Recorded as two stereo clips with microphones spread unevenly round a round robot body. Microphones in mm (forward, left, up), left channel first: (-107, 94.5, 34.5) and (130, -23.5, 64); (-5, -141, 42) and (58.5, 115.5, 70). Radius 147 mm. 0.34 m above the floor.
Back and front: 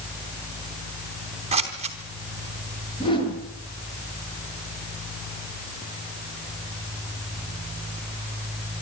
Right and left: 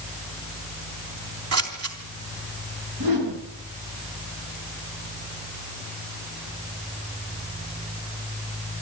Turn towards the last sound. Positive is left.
turn(degrees=80)